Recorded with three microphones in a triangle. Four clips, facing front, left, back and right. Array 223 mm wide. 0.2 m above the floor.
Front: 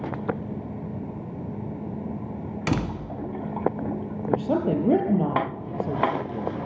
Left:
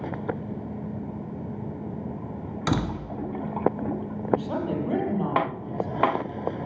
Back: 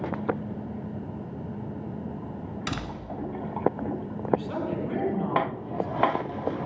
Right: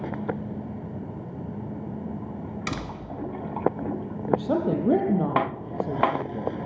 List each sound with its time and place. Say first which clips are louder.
2.7 s a door slam: left 10 dB, front 9 dB; 40° left, 1.4 m
4.3 s a woman speaking: right 3 dB, front 5 dB; 35° right, 4.5 m